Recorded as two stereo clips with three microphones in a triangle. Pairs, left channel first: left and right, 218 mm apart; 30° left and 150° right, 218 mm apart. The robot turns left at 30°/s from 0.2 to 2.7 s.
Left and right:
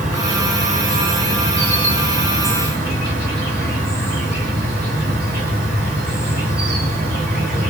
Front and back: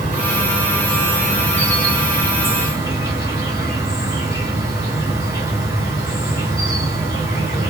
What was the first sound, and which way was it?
An insect, 5° right.